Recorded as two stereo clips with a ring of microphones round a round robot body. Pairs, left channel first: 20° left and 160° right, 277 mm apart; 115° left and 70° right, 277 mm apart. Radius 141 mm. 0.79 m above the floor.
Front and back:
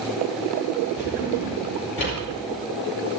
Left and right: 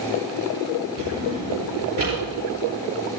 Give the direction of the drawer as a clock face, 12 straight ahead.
1 o'clock.